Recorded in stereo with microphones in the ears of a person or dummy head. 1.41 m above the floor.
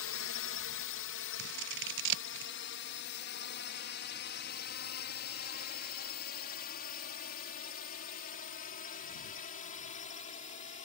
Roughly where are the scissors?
Right.